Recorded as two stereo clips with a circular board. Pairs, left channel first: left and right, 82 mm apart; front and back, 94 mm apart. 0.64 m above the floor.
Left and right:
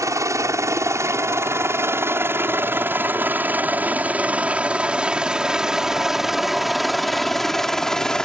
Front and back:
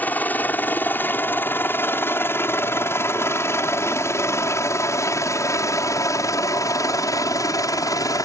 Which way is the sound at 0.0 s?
65° right.